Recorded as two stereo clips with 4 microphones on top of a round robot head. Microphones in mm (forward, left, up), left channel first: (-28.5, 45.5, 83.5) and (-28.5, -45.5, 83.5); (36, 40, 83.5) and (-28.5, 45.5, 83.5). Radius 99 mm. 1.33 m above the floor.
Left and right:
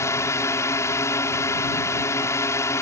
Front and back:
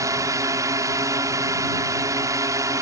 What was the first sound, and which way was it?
A drone, 145° left.